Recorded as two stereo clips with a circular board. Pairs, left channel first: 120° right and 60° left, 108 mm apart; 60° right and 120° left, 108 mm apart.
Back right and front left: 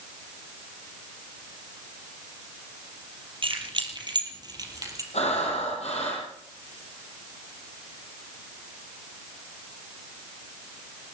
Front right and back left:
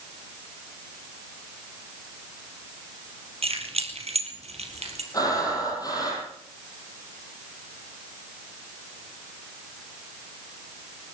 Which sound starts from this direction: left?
Keys jangling, at 3.4 s.